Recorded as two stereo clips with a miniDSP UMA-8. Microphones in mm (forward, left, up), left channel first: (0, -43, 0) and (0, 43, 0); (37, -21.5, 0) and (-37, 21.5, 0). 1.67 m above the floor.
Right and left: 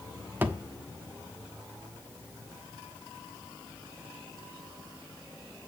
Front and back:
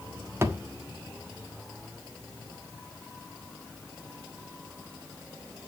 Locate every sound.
0.4 s a thud: 130° left, 1.2 m